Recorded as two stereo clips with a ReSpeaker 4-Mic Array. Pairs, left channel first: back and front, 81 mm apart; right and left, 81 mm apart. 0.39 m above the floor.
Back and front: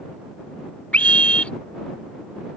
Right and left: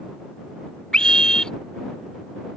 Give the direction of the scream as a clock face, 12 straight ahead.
5 o'clock.